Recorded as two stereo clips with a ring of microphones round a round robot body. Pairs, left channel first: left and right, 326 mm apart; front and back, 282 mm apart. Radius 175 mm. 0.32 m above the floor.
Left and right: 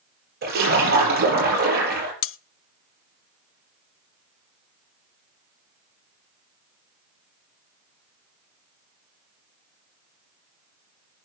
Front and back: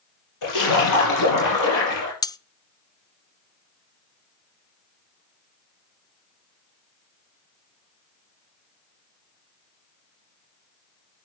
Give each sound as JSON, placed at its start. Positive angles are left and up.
{"t": 0.4, "sound": "a splash", "azimuth_deg": -25, "distance_m": 6.5}
{"t": 2.2, "sound": "cutlery clinking", "azimuth_deg": 70, "distance_m": 0.5}